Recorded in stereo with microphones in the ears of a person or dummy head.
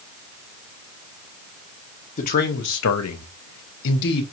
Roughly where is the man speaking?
Left.